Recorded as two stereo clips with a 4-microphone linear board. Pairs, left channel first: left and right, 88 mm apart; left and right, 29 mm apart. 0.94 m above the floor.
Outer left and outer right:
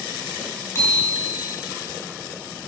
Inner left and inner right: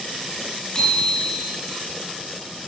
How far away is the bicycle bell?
About 6.5 m.